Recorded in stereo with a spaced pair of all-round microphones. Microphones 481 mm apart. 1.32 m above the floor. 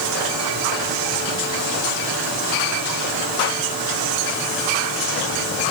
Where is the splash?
I don't hear a splash.